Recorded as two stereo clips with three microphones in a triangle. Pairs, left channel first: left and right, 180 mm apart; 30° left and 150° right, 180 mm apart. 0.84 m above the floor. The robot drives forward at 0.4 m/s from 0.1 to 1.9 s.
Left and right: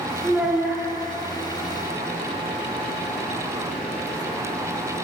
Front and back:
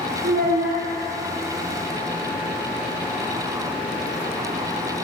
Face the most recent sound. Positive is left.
turn(degrees=-175)